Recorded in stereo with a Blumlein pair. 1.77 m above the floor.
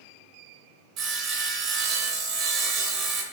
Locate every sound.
1.0 s sawing: 35° right, 0.8 m